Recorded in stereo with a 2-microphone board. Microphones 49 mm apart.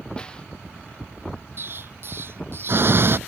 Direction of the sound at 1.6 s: 50° right (ahead or behind).